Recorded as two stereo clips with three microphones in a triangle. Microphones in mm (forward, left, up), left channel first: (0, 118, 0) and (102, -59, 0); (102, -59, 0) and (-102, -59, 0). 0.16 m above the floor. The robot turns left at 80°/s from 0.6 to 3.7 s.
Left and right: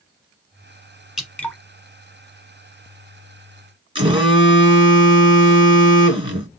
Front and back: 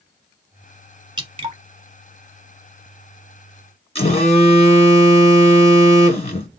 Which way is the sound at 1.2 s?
145° right.